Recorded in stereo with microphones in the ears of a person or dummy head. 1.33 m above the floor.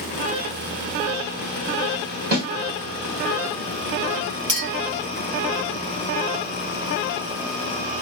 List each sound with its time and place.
2.3 s a snare drum: 55° right (ahead or behind), 2.5 m
4.5 s a clink: 30° right (ahead or behind), 1.0 m